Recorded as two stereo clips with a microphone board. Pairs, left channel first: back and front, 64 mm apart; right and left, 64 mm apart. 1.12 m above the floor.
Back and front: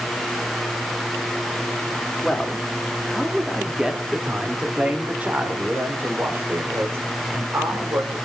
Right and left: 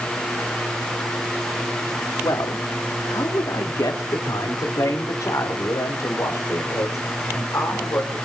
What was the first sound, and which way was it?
A man speaking, 105° right.